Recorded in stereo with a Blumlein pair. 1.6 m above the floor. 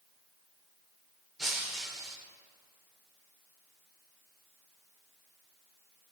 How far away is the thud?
No thud in this recording.